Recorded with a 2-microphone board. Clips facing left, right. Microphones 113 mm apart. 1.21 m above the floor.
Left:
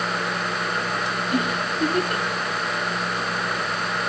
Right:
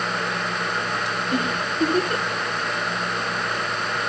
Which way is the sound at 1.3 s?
30° right (ahead or behind).